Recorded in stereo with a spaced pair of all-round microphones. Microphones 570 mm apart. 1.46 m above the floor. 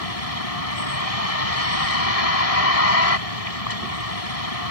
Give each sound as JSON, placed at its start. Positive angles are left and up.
{"t": 0.0, "sound": "a vehicle", "side_deg": 80}